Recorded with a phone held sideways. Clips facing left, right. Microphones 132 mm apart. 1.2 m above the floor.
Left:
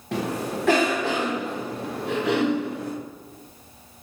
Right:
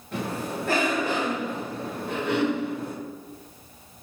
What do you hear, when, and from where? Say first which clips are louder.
0.1 s a cough: left 3 dB; 85° left, 0.9 m